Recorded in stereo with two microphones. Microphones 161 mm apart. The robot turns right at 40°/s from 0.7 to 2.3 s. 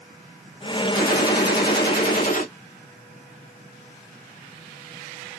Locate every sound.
0.9 s a gunshot: 65° left, 0.9 m; by 2.5 s 120° left, 0.9 m